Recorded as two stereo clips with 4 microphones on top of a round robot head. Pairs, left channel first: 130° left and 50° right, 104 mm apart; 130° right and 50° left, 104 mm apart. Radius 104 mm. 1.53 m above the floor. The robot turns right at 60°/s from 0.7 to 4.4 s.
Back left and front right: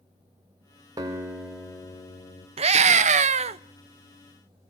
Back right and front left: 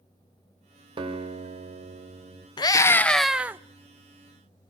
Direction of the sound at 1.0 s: 5° left.